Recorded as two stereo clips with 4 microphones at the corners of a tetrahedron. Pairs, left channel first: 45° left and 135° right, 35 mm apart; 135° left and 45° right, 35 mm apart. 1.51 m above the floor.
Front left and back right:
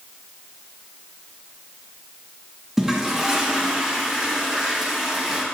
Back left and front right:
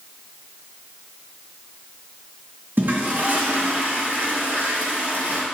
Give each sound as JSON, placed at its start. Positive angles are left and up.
{"t": 2.8, "sound": "a toilet flushing", "azimuth_deg": -55, "distance_m": 1.7}